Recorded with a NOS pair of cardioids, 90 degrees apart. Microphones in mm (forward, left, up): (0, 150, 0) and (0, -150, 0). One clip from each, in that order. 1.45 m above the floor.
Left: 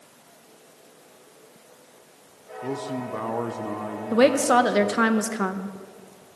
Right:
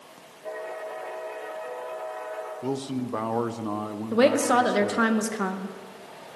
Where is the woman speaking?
10° left, 1.0 m.